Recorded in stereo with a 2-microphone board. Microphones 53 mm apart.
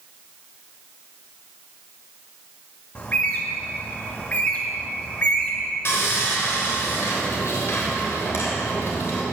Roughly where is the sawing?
Left.